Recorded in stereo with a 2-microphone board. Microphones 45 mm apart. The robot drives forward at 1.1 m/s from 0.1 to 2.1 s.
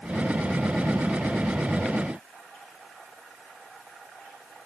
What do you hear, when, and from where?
Only background noise.